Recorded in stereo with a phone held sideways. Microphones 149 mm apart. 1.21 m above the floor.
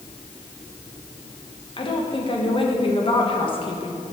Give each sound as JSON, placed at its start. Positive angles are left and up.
{"t": 1.8, "sound": "a woman speaking", "side_deg": 35, "distance_m": 1.5}